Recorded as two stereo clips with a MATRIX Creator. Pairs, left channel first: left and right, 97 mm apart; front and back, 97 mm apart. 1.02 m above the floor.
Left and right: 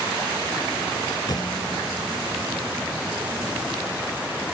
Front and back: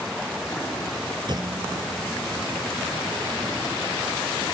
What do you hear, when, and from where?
1.3 s a clunk: 135° left